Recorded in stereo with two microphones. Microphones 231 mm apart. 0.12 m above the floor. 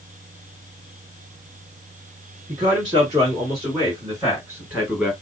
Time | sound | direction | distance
2.5 | a man speaking | 25° right (ahead or behind) | 1.8 m